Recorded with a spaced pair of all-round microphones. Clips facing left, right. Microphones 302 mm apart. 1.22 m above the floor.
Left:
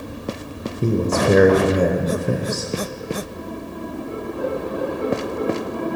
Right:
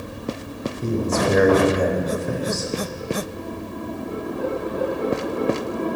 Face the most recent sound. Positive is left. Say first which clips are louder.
# left 3 dB
turn(degrees=40)  # may be behind; listen again after turning